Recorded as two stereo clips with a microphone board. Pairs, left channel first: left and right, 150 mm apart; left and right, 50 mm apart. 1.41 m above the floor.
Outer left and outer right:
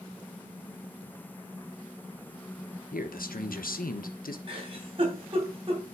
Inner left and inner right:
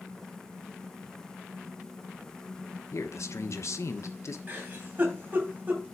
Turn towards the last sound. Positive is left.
turn(degrees=-40)  # may be behind; listen again after turning